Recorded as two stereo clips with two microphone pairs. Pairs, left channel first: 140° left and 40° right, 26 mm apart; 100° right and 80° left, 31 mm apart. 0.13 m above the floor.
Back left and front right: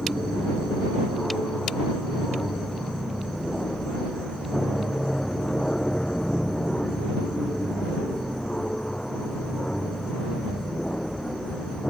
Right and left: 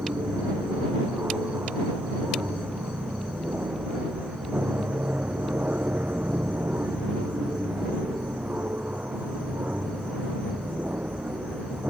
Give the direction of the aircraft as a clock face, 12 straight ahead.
9 o'clock.